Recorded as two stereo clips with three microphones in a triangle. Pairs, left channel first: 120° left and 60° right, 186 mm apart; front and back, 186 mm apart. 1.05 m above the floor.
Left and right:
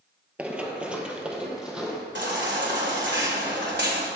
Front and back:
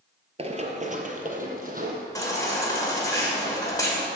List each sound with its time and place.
0.4 s running footsteps: 140° right, 1.3 m; by 2.0 s 145° right, 2.5 m
2.1 s a baby crying: 70° right, 2.5 m